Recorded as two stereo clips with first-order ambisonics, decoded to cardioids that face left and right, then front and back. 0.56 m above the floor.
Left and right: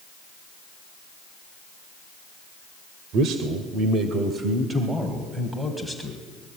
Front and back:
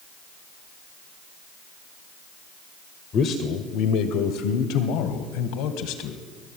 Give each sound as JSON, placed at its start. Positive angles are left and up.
{"t": 3.1, "sound": "a man speaking", "azimuth_deg": -55, "distance_m": 1.9}